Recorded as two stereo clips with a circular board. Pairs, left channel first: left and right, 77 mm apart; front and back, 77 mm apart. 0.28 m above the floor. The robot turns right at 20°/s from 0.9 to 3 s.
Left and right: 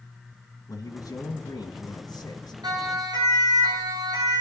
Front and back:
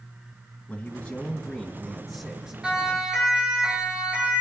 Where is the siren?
100° right, 7 m; by 4.4 s 115° right, 7 m.